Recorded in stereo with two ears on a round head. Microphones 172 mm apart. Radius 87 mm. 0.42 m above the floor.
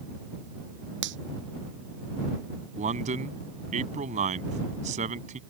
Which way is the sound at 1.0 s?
65° right (ahead or behind).